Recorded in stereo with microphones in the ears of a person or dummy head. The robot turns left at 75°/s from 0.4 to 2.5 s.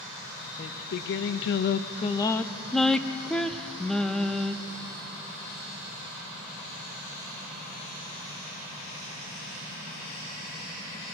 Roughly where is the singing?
Behind left.